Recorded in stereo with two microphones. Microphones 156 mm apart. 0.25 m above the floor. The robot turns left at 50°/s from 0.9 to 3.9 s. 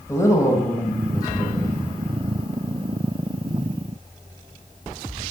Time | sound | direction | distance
0.1 | a woman speaking | 20° left (ahead or behind) | 1.0 m